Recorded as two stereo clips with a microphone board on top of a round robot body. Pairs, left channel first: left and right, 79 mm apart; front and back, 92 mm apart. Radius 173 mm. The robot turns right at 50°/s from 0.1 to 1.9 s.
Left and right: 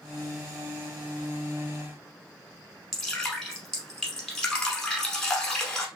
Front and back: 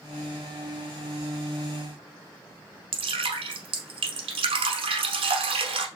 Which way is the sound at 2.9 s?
175° left.